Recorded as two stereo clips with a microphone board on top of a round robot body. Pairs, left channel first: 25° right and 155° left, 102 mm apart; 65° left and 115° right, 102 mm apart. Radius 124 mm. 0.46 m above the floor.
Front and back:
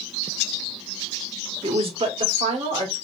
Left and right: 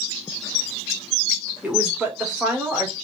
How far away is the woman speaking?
About 1.3 m.